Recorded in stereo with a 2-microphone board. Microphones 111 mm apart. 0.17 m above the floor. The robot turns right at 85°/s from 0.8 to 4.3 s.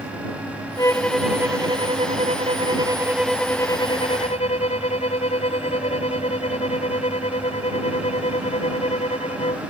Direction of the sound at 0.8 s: 145° left.